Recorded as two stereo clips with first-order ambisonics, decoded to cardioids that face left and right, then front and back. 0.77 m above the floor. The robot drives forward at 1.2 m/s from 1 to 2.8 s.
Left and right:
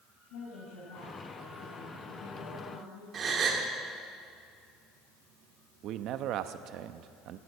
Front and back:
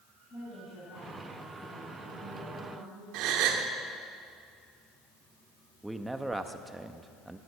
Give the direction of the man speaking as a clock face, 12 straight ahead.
3 o'clock.